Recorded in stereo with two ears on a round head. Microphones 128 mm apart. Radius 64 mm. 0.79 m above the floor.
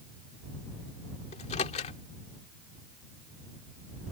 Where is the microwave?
45° left (ahead or behind).